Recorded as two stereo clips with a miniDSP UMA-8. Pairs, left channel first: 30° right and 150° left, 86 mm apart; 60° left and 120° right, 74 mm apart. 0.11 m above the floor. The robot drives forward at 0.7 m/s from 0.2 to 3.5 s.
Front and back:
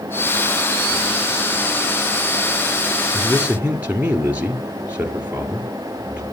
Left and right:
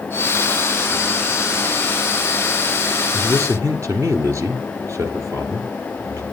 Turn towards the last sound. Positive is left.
turn(degrees=-145)